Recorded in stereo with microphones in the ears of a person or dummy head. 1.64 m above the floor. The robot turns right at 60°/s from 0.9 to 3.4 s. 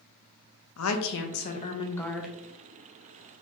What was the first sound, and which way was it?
A woman speaking, 100° left.